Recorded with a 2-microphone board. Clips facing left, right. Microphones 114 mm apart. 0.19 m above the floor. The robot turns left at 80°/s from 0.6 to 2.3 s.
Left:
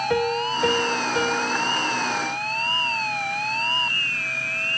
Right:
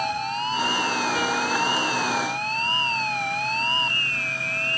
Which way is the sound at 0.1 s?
75° left.